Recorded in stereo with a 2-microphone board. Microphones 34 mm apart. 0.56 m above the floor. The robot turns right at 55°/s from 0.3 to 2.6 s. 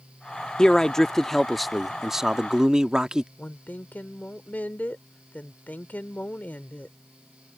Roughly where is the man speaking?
Left.